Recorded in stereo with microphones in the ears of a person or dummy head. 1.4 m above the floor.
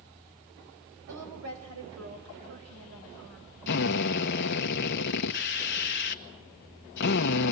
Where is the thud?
No thud in this recording.